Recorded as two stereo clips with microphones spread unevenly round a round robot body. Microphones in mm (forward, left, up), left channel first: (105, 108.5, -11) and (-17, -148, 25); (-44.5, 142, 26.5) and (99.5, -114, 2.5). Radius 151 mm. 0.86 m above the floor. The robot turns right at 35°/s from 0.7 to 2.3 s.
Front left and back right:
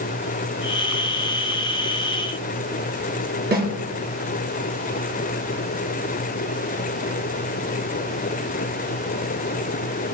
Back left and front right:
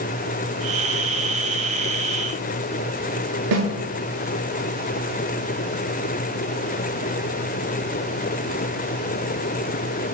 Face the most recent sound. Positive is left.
turn(degrees=-60)